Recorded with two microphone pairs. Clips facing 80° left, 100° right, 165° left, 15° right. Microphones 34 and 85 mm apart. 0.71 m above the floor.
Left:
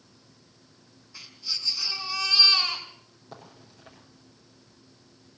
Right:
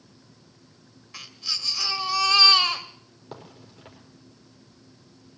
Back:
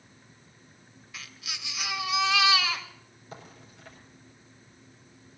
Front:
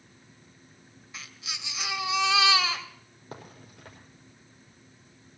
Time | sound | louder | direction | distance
1.1 | a baby crying | right 3 dB, front 1 dB | 80° right | 1.8 m
3.3 | a crack | right 4 dB, front 2 dB | 50° right | 5 m